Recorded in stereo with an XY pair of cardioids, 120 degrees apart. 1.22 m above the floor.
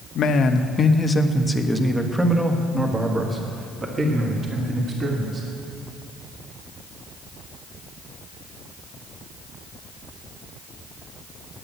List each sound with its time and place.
0.1 s a man speaking: 55° left, 0.9 m; by 5.5 s 35° right, 2.5 m